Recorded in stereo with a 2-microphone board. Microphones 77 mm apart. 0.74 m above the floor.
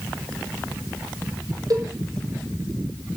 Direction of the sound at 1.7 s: 50° right (ahead or behind).